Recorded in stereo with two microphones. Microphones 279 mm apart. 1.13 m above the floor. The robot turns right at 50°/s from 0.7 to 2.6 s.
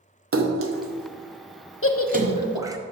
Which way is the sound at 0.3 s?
50° right (ahead or behind).